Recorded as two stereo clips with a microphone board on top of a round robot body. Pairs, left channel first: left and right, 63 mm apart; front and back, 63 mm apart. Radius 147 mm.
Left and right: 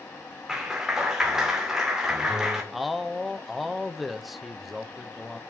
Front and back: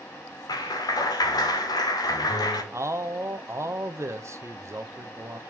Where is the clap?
10° right, 2 m.